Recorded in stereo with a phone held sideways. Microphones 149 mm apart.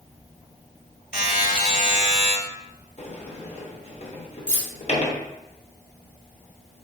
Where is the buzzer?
70° left (ahead or behind), 1.7 m.